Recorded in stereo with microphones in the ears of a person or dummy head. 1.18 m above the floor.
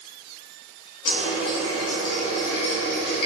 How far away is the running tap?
About 1.1 m.